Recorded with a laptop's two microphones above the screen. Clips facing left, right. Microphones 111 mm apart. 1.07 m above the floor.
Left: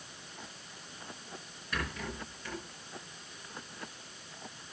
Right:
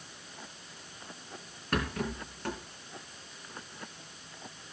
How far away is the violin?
I don't hear a violin.